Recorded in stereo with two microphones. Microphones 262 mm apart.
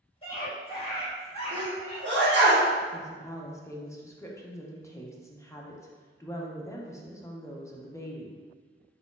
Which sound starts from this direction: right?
A sneeze, at 1.5 s.